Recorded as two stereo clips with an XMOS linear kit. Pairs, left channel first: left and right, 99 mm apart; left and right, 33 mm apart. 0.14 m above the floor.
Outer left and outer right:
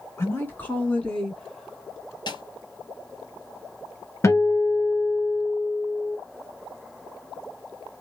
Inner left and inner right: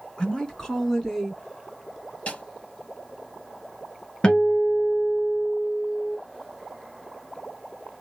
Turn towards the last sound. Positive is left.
turn(degrees=30)  # may be behind; listen again after turning